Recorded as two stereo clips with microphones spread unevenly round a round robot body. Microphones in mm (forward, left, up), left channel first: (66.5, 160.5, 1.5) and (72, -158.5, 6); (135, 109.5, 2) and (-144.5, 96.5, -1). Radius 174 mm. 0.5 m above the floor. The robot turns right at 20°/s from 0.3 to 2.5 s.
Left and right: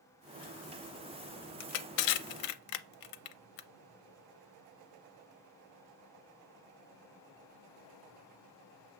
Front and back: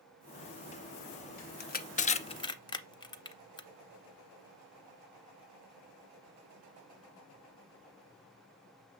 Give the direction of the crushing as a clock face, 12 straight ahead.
10 o'clock.